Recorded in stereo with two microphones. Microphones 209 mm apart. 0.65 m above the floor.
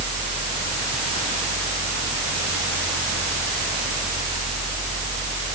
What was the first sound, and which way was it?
Only background noise.